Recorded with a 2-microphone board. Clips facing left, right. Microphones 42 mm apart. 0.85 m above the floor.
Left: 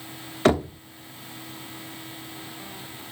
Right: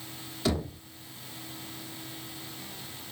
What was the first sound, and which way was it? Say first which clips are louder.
Knocking: left 10 dB; 55° left (ahead or behind).